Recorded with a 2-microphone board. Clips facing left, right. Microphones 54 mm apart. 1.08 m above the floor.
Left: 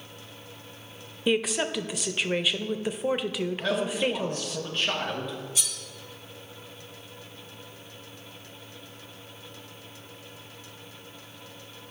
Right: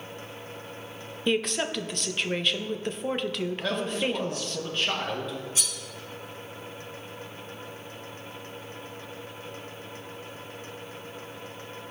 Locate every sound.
1.3 s a woman speaking: 5° left (ahead or behind), 0.5 m
3.6 s a man speaking: centre (ahead or behind), 1.3 m
5.5 s cutlery clinking: 35° right (ahead or behind), 2.5 m